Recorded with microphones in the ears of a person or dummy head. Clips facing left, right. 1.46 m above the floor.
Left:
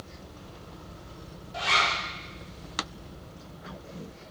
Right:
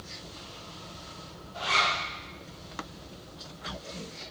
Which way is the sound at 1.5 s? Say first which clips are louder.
Left 1 dB; 80° left.